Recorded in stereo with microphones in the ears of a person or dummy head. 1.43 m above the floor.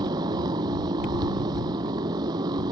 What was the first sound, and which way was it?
A motorcycle, 20° right (ahead or behind).